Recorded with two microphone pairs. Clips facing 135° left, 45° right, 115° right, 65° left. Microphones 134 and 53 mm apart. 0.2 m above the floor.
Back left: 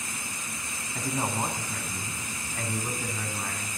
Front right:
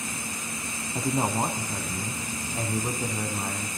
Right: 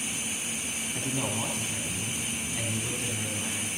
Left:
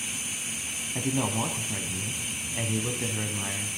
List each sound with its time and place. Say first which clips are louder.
0.9 s a man speaking: front right 4 dB, left 5 dB; 5° left, 1.3 m